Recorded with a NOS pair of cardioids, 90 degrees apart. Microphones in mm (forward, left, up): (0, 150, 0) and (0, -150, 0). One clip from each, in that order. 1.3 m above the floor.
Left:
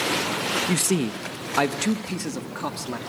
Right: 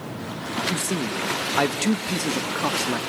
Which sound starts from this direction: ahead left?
A man speaking, at 0.7 s.